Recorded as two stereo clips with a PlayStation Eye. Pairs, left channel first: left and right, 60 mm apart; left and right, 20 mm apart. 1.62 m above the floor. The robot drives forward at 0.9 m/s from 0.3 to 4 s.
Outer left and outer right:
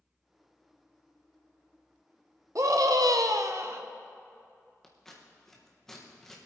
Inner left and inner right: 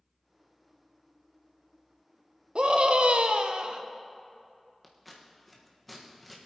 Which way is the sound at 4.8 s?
5° left (ahead or behind).